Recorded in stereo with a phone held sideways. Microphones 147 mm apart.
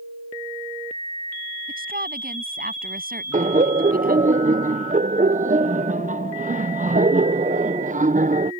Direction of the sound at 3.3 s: 60° right (ahead or behind).